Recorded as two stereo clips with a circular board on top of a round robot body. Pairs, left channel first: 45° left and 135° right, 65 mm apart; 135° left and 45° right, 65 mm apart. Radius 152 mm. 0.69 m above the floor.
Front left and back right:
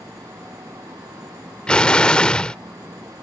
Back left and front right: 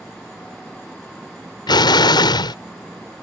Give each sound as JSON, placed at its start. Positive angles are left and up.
{"t": 1.7, "sound": "an explosion", "azimuth_deg": 125}